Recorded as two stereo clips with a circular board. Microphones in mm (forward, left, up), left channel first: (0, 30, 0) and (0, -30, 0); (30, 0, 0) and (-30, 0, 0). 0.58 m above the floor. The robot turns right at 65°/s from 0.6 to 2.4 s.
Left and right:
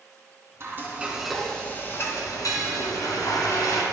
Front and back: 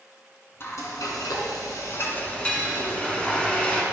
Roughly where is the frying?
Ahead right.